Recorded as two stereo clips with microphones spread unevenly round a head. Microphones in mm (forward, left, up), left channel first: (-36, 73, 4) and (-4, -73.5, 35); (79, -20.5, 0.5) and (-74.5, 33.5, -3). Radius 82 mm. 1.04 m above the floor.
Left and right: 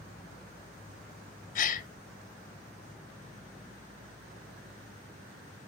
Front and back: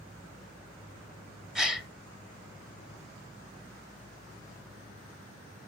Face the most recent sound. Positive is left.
turn(degrees=75)